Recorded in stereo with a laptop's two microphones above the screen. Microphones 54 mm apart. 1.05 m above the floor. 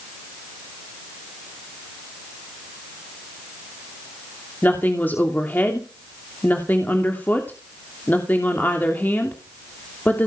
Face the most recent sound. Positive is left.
turn(degrees=35)  # may be behind; listen again after turning